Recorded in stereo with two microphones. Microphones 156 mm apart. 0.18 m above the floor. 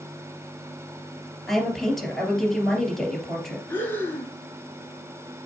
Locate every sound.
1.5 s a woman speaking: centre (ahead or behind), 3 m
3.7 s breathing: 15° left (ahead or behind), 1.6 m